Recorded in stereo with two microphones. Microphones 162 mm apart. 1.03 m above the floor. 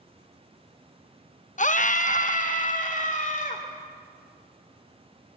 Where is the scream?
50° left (ahead or behind), 0.5 m.